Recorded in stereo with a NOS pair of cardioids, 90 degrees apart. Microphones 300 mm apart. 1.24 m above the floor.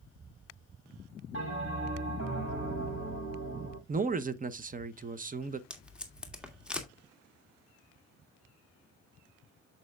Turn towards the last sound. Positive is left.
turn(degrees=-5)